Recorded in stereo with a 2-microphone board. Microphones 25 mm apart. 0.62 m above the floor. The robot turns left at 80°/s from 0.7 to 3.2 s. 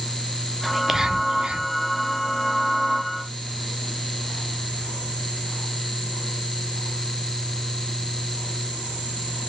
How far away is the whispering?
About 0.7 m.